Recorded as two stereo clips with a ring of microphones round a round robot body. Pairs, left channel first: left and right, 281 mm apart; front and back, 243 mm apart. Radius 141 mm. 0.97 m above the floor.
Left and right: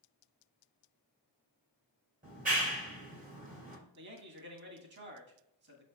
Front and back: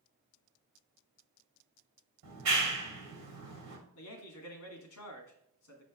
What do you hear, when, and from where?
2.2 s a clap: 155° right, 3 m
4.0 s a man speaking: 40° right, 2.5 m